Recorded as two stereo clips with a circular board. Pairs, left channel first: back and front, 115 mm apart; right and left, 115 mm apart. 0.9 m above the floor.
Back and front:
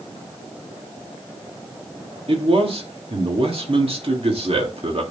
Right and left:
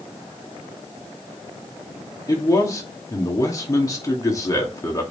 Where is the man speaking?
30° right, 2 m.